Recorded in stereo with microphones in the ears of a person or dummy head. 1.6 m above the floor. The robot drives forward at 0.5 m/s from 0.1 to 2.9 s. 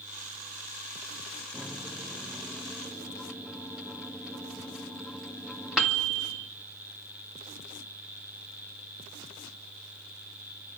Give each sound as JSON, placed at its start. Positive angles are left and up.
{"t": 1.5, "sound": "a microwave", "side_deg": 5, "distance_m": 1.0}